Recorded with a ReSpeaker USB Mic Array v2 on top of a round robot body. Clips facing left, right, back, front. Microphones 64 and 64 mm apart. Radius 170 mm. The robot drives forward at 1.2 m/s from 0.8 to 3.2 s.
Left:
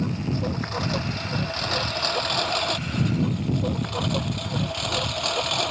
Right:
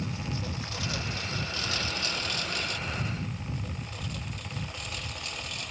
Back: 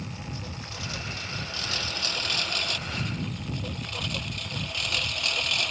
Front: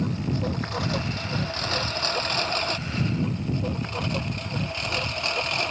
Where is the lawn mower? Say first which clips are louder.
Left 8 dB, front 11 dB; 45° left; by 5.7 s 60° left.